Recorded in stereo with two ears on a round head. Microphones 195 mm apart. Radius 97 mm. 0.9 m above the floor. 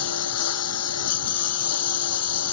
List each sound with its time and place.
0.0 s a lawn mower: 80° left